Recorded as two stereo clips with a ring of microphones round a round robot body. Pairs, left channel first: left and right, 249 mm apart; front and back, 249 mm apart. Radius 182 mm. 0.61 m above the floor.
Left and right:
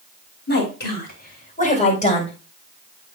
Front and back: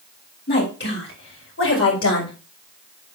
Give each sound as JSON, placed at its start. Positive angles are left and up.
{"t": 0.5, "sound": "a woman speaking", "azimuth_deg": 50, "distance_m": 4.0}